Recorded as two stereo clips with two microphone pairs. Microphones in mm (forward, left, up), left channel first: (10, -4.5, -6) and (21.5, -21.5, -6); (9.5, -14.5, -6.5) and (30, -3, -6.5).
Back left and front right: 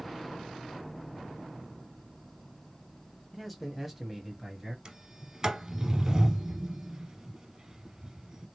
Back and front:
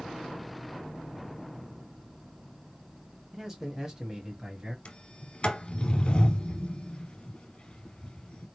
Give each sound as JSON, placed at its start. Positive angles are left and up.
{"t": 3.3, "sound": "a man speaking", "azimuth_deg": 40, "distance_m": 1.3}
{"t": 4.8, "sound": "a sliding door", "azimuth_deg": -110, "distance_m": 1.1}